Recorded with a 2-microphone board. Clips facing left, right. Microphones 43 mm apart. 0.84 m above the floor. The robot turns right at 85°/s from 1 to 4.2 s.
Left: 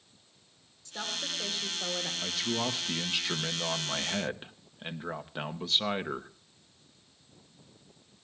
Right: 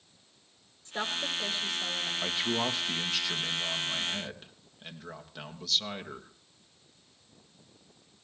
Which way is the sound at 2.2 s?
50° right.